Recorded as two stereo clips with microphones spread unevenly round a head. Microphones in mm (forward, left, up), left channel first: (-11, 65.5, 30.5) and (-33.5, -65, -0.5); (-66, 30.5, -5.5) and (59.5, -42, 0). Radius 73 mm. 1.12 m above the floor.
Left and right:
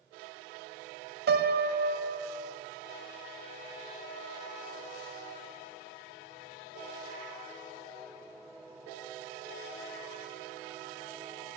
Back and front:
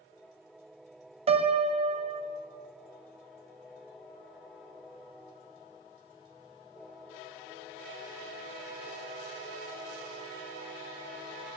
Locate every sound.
1.3 s a piano: 85° right, 0.5 m